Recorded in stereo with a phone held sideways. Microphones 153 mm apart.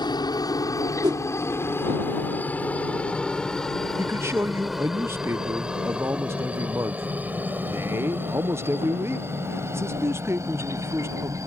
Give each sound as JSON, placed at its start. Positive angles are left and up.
{"t": 0.0, "sound": "a helicopter", "side_deg": 25}
{"t": 1.0, "sound": "a whoosh", "side_deg": -30}
{"t": 4.0, "sound": "a man speaking", "side_deg": -15}